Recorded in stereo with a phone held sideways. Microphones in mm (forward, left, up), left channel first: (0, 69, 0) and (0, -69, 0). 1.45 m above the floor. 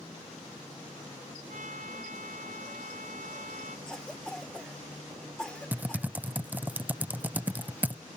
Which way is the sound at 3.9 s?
5° left (ahead or behind).